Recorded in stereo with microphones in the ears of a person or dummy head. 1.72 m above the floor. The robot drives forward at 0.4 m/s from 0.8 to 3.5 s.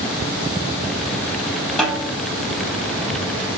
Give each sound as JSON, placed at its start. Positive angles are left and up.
{"t": 1.8, "sound": "a snare drum", "side_deg": 0, "distance_m": 5.0}